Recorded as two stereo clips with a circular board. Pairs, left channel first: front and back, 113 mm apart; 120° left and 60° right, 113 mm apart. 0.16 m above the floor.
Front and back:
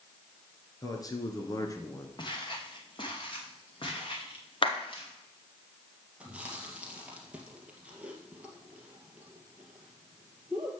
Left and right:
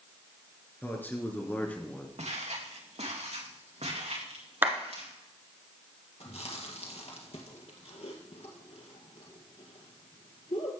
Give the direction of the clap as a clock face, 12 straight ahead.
12 o'clock.